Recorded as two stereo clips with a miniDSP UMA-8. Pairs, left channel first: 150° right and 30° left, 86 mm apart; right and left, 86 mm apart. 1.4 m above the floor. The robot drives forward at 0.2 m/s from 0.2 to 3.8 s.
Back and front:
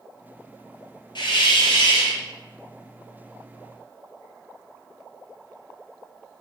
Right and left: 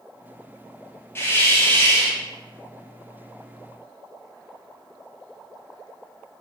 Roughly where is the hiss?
Behind right.